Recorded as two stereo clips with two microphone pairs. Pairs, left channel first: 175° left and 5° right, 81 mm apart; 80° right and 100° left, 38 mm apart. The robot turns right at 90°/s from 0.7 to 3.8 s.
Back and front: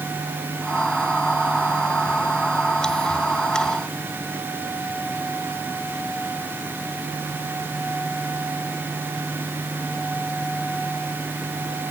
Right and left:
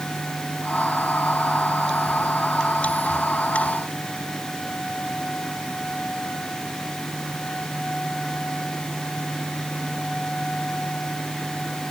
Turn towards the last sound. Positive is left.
No sound to turn to.